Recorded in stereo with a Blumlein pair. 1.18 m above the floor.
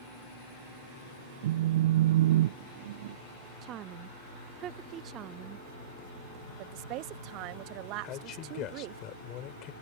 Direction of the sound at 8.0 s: 35° left.